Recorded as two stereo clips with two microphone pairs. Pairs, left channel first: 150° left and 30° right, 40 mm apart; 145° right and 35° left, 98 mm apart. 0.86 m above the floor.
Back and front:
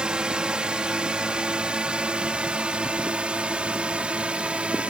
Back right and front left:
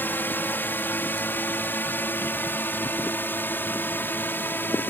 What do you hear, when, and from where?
0.0 s a drone: 85° right; by 4.9 s 80° right